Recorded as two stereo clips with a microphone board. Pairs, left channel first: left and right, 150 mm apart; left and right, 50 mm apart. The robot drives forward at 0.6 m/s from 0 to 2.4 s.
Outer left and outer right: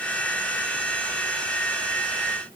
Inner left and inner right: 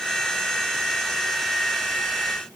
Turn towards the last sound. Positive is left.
No sound to turn to.